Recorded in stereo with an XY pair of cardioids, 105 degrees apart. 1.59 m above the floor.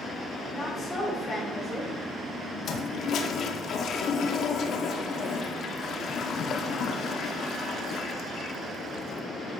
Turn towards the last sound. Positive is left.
turn(degrees=60)